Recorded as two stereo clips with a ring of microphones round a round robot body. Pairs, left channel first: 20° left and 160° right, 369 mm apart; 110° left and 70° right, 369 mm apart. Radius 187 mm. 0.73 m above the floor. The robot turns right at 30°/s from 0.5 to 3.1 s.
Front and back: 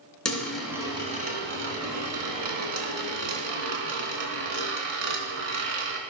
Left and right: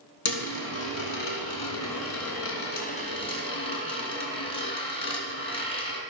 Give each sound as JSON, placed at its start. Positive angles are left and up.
{"t": 0.2, "sound": "a dropped coin", "azimuth_deg": 110, "distance_m": 3.0}